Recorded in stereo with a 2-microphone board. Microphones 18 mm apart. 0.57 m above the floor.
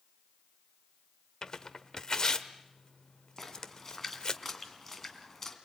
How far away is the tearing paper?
About 1.0 m.